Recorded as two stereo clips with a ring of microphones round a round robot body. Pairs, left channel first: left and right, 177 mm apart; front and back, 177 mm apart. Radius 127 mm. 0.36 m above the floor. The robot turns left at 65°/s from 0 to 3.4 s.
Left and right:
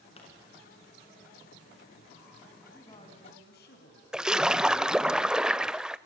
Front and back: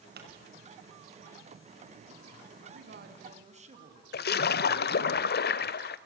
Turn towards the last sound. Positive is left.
turn(degrees=-5)